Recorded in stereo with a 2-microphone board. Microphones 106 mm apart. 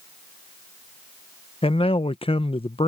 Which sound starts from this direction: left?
A man speaking, at 1.6 s.